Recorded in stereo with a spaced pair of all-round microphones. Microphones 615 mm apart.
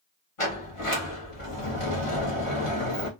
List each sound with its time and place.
0.4 s a sliding door: 55° left (ahead or behind), 1.3 m